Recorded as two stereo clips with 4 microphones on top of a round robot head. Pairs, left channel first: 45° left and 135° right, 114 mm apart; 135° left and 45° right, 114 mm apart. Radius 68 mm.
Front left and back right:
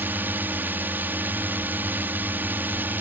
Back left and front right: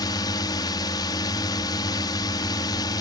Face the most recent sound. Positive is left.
turn(degrees=160)